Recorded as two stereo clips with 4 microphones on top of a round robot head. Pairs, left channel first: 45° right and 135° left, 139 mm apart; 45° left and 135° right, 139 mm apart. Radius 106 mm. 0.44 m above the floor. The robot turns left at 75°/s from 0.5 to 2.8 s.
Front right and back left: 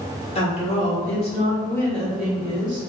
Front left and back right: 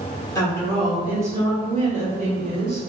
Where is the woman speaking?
15° right, 1.8 m; by 2.8 s 170° left, 1.8 m.